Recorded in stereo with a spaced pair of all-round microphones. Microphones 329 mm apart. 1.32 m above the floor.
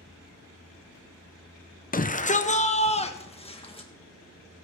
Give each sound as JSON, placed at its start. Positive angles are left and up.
{"t": 1.9, "sound": "a shout", "side_deg": 25, "distance_m": 0.7}